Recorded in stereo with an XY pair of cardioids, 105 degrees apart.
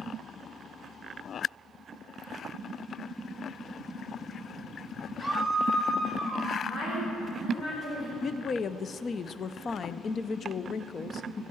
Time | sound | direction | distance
5.2 | a scream | 10° left | 1.7 m
6.7 | a woman speaking | 35° left | 5.5 m
8.2 | a woman speaking | 45° left | 0.6 m